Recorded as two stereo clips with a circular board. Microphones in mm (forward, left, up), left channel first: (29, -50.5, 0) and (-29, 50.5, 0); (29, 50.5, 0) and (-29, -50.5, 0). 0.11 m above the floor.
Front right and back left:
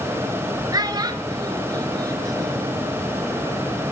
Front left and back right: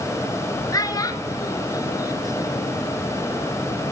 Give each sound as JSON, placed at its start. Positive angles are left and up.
{"t": 0.7, "sound": "a child speaking", "azimuth_deg": 95, "distance_m": 0.9}